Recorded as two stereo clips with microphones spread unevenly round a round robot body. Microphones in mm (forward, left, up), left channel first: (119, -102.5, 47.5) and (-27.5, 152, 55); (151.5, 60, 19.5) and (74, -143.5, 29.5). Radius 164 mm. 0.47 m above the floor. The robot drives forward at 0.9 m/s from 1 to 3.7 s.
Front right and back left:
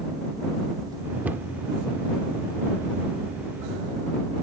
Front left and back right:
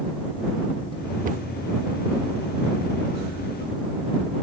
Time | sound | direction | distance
1.2 | a cupboard door | 155° right | ?